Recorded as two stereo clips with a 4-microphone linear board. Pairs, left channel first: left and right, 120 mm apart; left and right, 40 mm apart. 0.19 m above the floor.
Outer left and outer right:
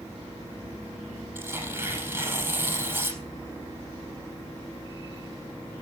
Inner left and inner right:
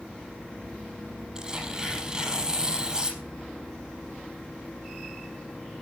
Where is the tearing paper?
20° right (ahead or behind), 5.5 m.